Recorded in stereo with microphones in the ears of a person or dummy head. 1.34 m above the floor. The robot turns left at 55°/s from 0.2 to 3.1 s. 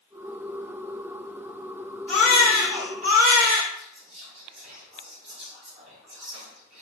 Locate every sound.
2.1 s a baby crying: 10° left, 1.5 m; by 3.6 s 45° right, 1.5 m
3.8 s whispering: 45° right (ahead or behind), 1.0 m